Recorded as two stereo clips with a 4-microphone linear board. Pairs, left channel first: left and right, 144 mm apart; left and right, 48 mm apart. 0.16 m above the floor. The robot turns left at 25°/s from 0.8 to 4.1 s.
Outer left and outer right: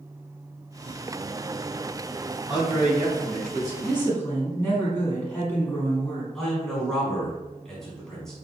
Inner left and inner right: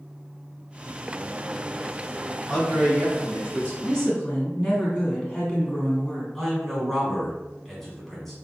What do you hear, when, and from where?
2.5 s a man speaking: 10° right, 2.0 m; by 3.7 s 40° right, 2.0 m
3.8 s a woman speaking: 15° left (ahead or behind), 1.4 m
6.3 s a man speaking: 5° left (ahead or behind), 1.2 m